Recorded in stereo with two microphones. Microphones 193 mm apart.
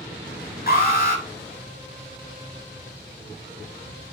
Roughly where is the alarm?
Left.